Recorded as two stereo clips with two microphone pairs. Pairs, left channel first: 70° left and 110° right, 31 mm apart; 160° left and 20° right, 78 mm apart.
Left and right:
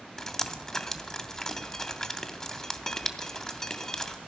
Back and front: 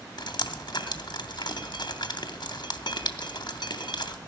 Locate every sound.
0.2 s dripping: 140° left, 1.0 m